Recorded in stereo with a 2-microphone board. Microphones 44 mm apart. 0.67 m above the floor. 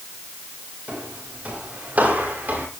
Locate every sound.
0.9 s footsteps: 30° right (ahead or behind), 7 m; by 2.7 s 40° right (ahead or behind), 8 m